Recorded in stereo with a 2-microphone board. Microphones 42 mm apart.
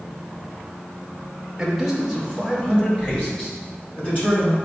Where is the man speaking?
10° right (ahead or behind), 0.8 m; by 4.6 s 40° left (ahead or behind), 3.5 m.